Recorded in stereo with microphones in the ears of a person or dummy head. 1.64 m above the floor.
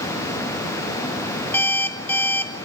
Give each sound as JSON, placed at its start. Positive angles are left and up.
{"t": 1.5, "sound": "an alarm clock", "side_deg": 10, "distance_m": 3.0}